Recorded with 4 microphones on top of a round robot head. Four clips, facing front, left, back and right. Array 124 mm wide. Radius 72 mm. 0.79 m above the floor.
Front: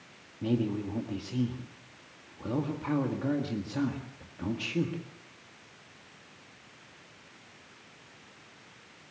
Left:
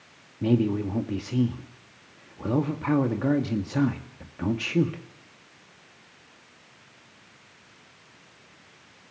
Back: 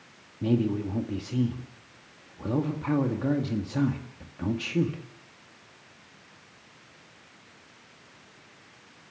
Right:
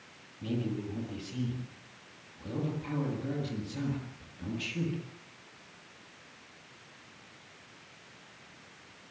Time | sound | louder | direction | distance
0.4 | a man speaking | left 11 dB, back 4 dB | 100° left | 1.9 m